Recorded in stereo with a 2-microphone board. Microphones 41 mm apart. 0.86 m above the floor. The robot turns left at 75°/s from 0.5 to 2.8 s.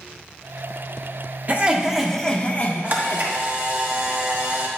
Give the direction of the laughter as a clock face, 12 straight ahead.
5 o'clock.